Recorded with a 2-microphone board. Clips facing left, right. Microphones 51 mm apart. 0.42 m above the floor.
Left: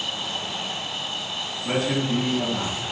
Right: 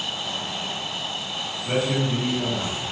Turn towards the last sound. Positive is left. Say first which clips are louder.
# even
turn(degrees=40)  # may be behind; listen again after turning